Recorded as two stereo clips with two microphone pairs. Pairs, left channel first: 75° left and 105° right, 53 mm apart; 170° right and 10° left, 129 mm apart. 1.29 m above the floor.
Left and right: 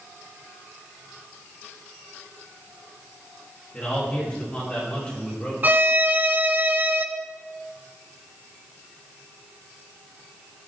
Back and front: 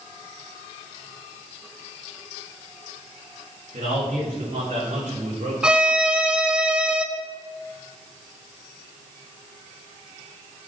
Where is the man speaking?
10° left, 2.5 m.